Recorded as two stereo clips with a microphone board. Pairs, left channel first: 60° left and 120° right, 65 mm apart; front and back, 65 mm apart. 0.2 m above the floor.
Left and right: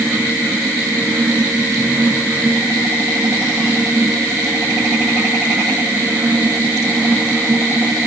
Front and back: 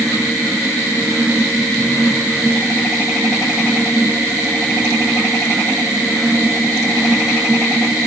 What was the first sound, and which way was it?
Only background noise.